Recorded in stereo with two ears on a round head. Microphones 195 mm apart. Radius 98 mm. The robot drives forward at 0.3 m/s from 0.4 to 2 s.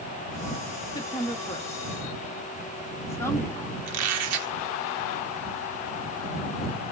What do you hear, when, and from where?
0.9 s a woman speaking: 15° left (ahead or behind), 0.8 m; by 3.8 s 10° left (ahead or behind), 1.1 m
3.9 s a squeak: 85° right, 1.2 m